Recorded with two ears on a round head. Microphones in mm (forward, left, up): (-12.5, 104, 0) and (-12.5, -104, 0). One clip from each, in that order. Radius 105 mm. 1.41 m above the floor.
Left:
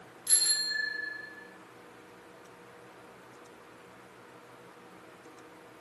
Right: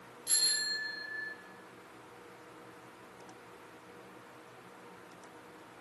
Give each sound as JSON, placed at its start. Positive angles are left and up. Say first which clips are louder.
{"t": 0.3, "sound": "a bicycle bell", "louder": "left 2 dB", "side_deg": 20, "distance_m": 5.5}